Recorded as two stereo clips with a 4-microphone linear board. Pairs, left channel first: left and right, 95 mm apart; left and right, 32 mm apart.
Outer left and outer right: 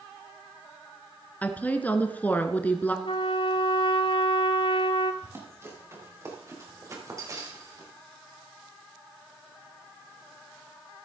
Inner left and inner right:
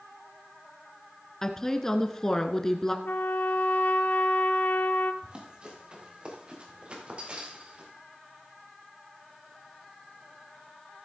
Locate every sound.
1.4 s a woman speaking: 15° left (ahead or behind), 1.4 m
3.0 s a trumpet: 65° left (ahead or behind), 0.8 m
5.2 s running footsteps: 30° right (ahead or behind), 5 m; by 7.9 s 40° right (ahead or behind), 4 m